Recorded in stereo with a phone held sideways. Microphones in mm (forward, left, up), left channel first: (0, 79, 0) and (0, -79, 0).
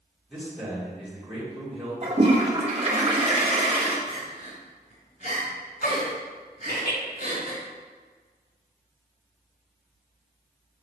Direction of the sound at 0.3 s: Centre (ahead or behind).